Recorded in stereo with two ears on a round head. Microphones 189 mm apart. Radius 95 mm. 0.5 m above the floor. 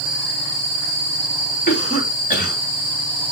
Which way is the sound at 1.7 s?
40° left (ahead or behind).